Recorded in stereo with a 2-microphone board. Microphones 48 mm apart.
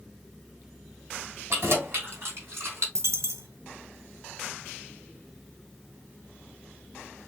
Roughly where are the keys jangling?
Right.